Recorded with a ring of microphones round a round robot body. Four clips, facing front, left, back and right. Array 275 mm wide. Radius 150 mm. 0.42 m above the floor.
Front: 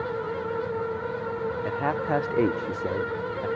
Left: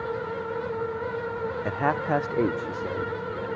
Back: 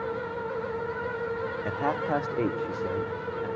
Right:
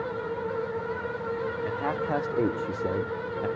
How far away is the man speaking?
About 0.9 m.